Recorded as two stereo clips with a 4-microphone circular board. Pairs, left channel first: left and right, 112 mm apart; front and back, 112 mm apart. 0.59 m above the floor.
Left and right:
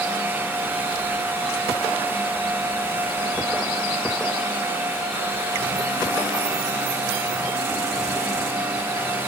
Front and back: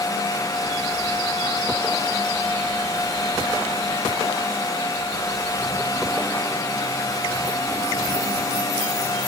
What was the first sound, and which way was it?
Only background noise.